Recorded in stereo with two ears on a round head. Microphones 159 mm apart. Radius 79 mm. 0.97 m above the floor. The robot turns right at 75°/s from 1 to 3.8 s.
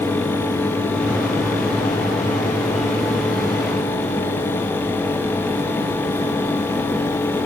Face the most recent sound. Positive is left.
No sound to turn to.